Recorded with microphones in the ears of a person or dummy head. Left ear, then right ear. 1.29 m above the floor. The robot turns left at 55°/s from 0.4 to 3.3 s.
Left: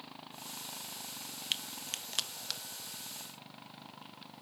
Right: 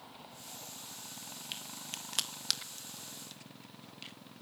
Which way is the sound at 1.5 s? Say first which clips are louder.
Left 7 dB; 40° left (ahead or behind).